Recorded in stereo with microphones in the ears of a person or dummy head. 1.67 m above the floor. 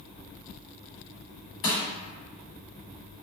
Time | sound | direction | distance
1.6 | crushing | 35° left (ahead or behind) | 1.3 m